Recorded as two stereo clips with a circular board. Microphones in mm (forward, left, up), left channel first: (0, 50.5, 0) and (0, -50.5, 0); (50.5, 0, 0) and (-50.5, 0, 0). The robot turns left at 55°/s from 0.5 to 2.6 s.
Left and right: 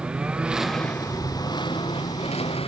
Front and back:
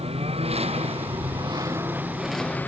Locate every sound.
0.0 s a lawn mower: 170° right; by 2.7 s 75° left